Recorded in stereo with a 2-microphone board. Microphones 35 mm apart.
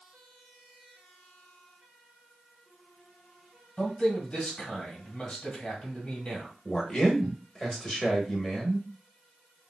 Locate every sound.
3.8 s a man speaking: 30° left (ahead or behind), 1.5 m
6.7 s a man speaking: 10° left (ahead or behind), 0.9 m